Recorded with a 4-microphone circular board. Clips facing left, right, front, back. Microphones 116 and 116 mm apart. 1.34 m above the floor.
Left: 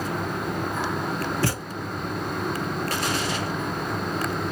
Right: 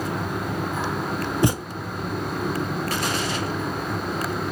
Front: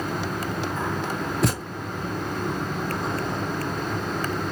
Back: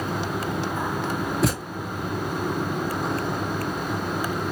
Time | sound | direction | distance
1.4 | a thud | 95° right | 0.7 m